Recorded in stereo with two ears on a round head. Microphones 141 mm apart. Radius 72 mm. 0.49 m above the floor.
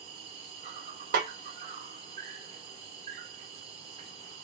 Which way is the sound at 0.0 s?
45° right (ahead or behind).